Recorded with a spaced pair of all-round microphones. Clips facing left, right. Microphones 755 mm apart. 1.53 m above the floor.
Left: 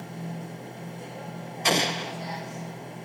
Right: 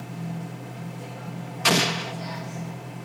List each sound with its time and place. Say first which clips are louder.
0.0 s a machine running: right 2 dB; 45° right (ahead or behind), 1.2 m
1.6 s an explosion: right 2 dB; 50° right (ahead or behind), 0.6 m